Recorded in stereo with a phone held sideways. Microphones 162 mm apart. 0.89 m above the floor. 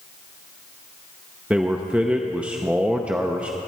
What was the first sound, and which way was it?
A man speaking, 10° right (ahead or behind).